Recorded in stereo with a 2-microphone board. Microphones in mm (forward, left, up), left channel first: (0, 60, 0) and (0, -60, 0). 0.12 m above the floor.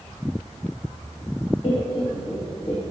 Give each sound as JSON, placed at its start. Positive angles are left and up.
{"t": 1.6, "sound": "laughter", "side_deg": 40, "distance_m": 1.9}